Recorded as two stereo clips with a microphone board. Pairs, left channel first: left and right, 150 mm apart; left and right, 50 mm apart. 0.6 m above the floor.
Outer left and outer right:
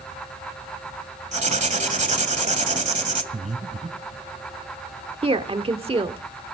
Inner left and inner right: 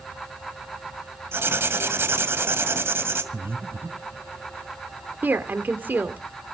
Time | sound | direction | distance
1.3 | writing | 50° right (ahead or behind) | 2.0 m
3.3 | breathing | 50° right (ahead or behind) | 1.5 m
5.2 | a woman speaking | 40° right (ahead or behind) | 1.5 m